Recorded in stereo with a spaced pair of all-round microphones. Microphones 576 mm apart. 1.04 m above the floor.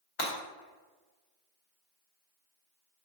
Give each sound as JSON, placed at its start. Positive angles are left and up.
{"t": 0.2, "sound": "breaking glass", "side_deg": 60, "distance_m": 1.0}